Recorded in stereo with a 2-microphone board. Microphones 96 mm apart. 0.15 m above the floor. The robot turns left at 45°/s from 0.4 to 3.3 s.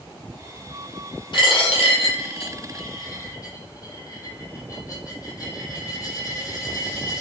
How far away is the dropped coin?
About 1.6 m.